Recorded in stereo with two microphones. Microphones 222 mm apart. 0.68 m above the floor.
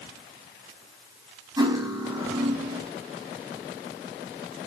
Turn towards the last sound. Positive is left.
turn(degrees=-20)  # may be behind; listen again after turning